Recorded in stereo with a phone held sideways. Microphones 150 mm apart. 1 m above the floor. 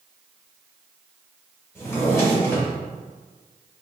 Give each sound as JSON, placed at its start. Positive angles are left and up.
{"t": 1.8, "sound": "a drawer", "side_deg": 20, "distance_m": 3.0}